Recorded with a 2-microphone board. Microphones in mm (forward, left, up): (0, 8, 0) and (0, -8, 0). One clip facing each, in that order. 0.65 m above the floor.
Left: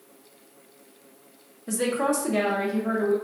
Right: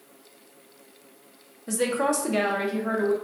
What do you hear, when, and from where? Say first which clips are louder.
1.7 s a woman speaking: even; 20° right (ahead or behind), 0.6 m; by 3.1 s 45° right (ahead or behind), 1.2 m